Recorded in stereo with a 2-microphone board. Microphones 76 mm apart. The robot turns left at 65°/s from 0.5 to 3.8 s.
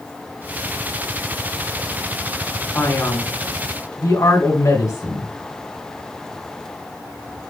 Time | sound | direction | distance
2.7 | a man speaking | 135° left | 2.5 m